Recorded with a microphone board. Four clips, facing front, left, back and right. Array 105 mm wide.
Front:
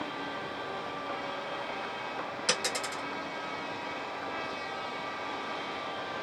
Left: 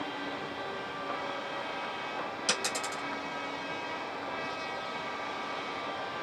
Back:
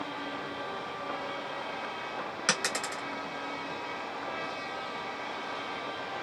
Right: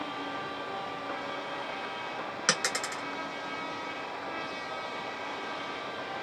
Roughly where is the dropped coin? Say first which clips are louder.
Right 5 dB, back 2 dB; behind right.